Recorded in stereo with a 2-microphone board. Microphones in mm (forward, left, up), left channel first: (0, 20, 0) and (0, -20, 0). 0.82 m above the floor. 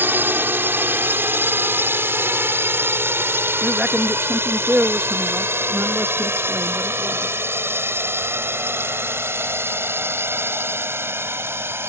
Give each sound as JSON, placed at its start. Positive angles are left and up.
{"t": 0.0, "sound": "a drone", "side_deg": -60}
{"t": 3.6, "sound": "a man speaking", "side_deg": -30}